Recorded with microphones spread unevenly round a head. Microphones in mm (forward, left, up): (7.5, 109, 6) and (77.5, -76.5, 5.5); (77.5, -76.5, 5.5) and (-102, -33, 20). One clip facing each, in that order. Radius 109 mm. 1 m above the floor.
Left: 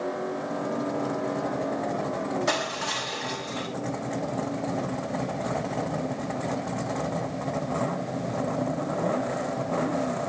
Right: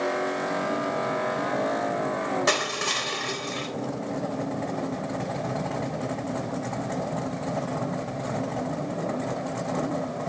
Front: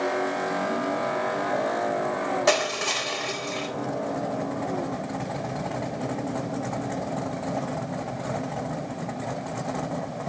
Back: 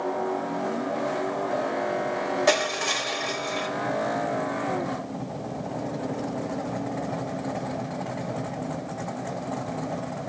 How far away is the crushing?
About 3.5 m.